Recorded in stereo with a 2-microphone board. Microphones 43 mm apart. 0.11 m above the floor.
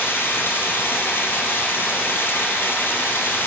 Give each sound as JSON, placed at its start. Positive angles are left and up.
{"t": 0.0, "sound": "running water", "side_deg": 55, "distance_m": 2.5}